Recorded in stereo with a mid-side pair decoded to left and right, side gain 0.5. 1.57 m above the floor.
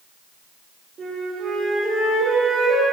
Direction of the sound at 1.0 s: 60° right.